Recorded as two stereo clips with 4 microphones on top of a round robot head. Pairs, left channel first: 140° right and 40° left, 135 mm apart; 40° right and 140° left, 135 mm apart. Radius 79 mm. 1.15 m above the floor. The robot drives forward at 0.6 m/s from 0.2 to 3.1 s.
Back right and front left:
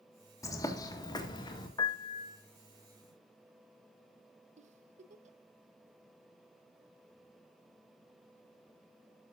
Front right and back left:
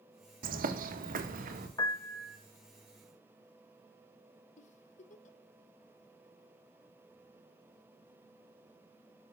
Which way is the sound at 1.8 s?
90° right.